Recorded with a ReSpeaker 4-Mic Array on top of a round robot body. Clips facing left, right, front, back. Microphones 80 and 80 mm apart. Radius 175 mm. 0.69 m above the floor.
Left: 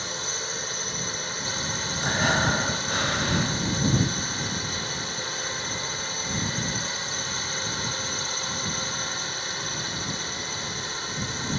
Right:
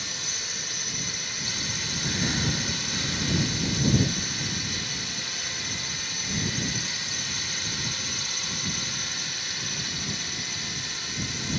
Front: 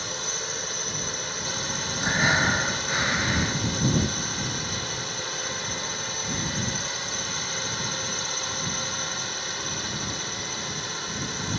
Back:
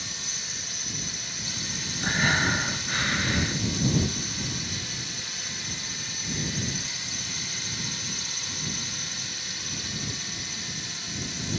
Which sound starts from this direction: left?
Breathing, at 2.0 s.